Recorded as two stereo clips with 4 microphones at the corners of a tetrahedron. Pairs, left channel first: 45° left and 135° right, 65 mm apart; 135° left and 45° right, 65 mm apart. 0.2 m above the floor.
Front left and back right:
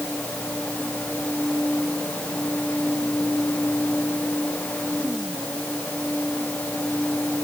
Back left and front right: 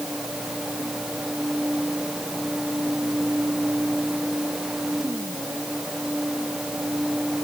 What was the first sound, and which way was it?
Only background noise.